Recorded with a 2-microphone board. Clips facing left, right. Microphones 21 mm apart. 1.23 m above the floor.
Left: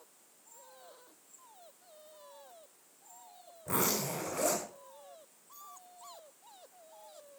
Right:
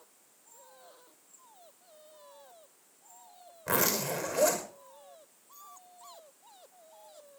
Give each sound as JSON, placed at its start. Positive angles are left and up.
{"t": 3.7, "sound": "a zipper", "side_deg": -80, "distance_m": 6.0}